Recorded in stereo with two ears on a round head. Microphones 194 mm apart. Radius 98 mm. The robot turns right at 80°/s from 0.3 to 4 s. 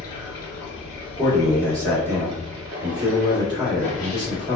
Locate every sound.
0.0 s running water: 85° left, 1.3 m; by 4.6 s 20° left, 1.3 m
1.2 s a man speaking: 25° left (ahead or behind), 1.5 m; by 4.6 s 5° right (ahead or behind), 1.5 m